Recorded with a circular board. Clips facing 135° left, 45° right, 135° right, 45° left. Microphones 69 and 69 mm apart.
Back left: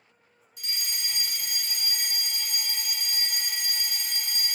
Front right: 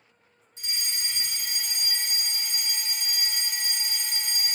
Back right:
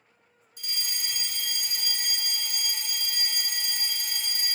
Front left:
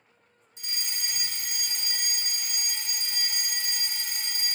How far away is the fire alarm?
About 3 m.